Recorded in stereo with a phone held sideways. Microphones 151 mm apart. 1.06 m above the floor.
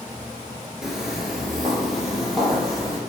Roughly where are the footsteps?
Centre.